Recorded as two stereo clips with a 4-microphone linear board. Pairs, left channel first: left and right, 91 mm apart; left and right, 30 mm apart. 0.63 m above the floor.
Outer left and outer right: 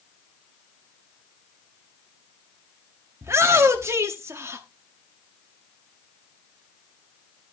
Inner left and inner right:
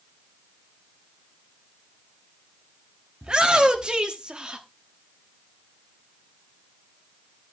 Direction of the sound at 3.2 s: 30° right (ahead or behind).